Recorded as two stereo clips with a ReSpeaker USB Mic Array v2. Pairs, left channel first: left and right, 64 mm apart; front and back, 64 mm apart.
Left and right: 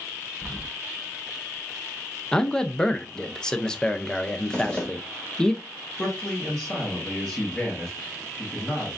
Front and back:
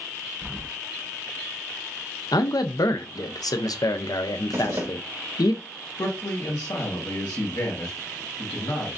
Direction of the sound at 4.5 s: 160° left.